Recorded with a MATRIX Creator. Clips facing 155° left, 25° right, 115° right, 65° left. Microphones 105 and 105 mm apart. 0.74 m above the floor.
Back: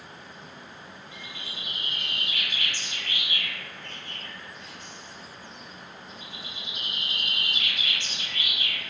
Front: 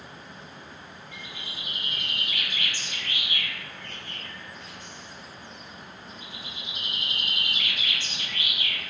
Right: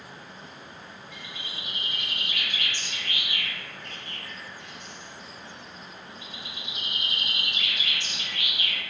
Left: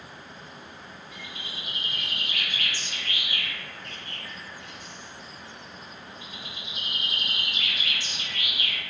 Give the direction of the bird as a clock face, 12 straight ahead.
1 o'clock.